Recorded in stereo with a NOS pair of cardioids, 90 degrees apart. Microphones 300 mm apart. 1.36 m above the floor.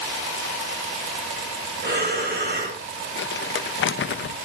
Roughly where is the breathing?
Ahead right.